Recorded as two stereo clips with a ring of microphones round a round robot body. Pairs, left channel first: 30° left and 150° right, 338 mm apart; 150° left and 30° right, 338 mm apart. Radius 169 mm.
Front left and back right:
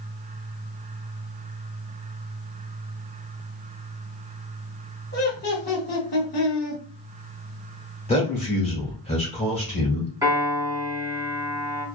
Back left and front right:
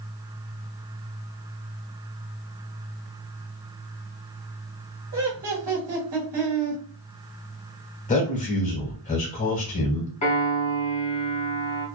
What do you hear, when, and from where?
5.1 s laughter: 15° right, 1.2 m
8.1 s a man speaking: 95° left, 1.0 m
10.2 s a piano: 150° left, 1.2 m